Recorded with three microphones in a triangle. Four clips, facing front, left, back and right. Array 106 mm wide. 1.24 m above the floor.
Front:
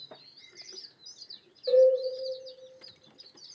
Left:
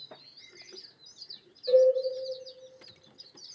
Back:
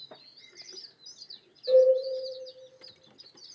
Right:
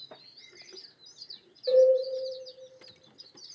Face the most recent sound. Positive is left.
turn(degrees=-55)